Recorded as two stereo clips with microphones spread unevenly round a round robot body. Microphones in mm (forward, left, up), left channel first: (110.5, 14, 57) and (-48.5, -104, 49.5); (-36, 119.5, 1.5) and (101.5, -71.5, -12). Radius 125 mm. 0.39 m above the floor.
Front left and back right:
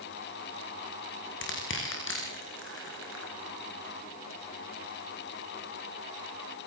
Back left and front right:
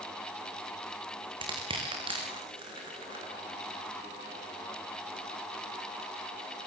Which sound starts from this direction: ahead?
Crushing, at 1.4 s.